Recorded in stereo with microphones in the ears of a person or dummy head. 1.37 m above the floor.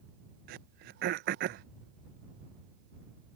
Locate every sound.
0.5 s throat clearing: 50° right (ahead or behind)